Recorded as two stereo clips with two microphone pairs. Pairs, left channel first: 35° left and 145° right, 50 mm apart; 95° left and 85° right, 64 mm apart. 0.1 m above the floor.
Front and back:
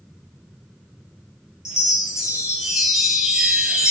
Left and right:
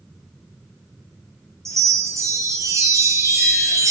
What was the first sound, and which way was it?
A chime, 75° right.